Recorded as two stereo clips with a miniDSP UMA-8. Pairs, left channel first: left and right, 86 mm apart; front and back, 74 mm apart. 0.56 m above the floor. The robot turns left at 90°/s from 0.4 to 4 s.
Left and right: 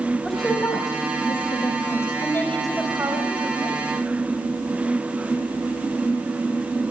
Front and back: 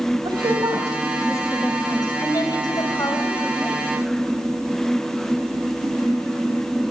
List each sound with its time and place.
0.2 s a woman speaking: 175° left, 2.5 m; by 2.1 s 25° left, 2.5 m
2.2 s a woman speaking: 40° left, 3.5 m; by 3.9 s 110° right, 3.5 m